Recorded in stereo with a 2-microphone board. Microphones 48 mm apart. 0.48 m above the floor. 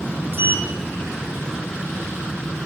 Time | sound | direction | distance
0.3 | a sliding door | 50° right (ahead or behind) | 2 m